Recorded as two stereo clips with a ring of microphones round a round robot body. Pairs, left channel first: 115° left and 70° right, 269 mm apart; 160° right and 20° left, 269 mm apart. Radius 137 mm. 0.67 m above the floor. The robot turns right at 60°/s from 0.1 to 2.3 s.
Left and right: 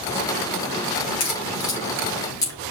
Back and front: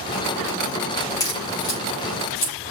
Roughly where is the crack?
Behind left.